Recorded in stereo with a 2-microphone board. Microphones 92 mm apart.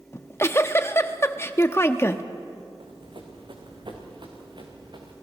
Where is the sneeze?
No sneeze in this recording.